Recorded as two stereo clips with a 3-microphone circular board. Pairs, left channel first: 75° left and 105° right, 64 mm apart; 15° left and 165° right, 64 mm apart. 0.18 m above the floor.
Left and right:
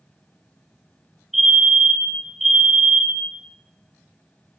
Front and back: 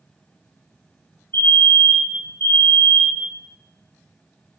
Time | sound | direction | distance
1.3 | a fire alarm | 20° right | 4 m